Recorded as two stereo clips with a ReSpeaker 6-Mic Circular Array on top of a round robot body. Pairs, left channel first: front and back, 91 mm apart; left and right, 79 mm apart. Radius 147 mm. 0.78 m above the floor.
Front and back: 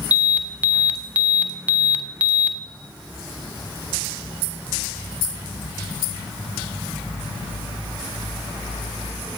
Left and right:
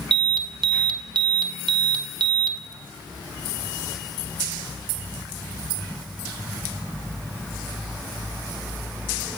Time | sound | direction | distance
0.1 | an alarm | 105° right | 1.5 m